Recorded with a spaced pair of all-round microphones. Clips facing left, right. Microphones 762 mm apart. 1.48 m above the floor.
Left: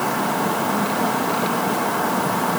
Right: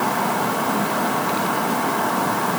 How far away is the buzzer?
I don't hear a buzzer.